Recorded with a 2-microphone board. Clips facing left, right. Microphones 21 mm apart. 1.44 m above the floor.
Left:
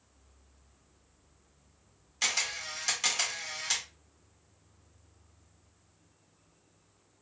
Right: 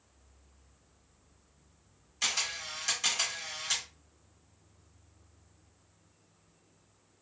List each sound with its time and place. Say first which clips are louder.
2.2 s a camera shutter: left 1 dB; 20° left (ahead or behind), 1.3 m